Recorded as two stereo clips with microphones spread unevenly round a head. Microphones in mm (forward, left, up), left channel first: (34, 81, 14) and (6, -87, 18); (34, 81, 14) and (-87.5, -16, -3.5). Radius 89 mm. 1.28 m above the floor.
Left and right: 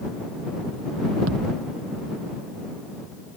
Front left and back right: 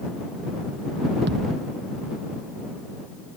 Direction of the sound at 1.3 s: 105° right.